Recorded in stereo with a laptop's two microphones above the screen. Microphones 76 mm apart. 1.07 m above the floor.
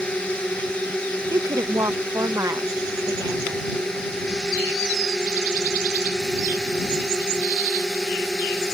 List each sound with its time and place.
0.0 s a drone: 15° left (ahead or behind); by 8.7 s 5° left (ahead or behind)
1.3 s a woman speaking: 50° right (ahead or behind)